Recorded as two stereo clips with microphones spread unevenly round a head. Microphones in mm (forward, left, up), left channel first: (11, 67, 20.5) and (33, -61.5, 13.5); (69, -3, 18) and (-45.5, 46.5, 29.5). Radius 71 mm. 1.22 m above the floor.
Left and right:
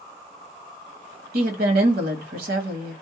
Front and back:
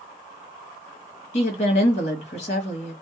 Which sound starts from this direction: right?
A woman speaking, at 1.3 s.